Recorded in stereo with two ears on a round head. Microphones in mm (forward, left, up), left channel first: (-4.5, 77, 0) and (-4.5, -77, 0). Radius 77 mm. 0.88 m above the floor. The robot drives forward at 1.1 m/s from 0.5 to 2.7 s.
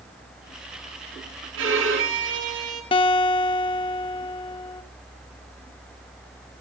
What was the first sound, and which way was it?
A violin, 80° right.